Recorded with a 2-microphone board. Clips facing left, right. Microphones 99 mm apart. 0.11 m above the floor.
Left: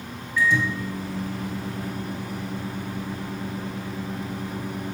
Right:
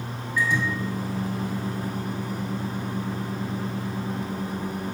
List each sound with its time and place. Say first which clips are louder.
0.4 s a microwave: left 2 dB; 15° right (ahead or behind), 2.5 m